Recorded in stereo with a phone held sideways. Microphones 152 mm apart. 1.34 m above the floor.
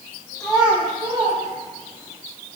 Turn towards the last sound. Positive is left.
turn(degrees=-65)  # may be behind; listen again after turning